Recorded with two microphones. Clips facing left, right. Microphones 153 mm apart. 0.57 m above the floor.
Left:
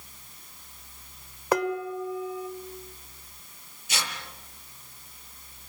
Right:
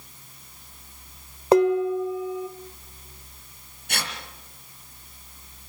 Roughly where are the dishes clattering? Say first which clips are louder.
Right 9 dB; right.